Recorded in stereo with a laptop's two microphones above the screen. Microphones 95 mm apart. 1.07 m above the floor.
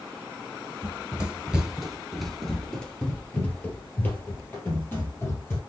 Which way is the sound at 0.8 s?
15° right (ahead or behind).